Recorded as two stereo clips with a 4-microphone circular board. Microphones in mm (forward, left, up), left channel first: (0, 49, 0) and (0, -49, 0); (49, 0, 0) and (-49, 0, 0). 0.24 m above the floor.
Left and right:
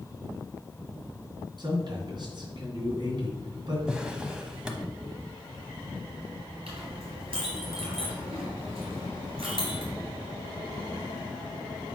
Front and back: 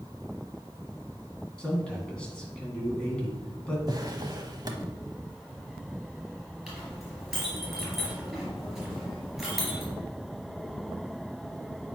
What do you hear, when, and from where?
1.6 s a man speaking: 75° right, 2.5 m
3.9 s a drawer: 165° right, 0.9 m
6.7 s a clink: 90° right, 3 m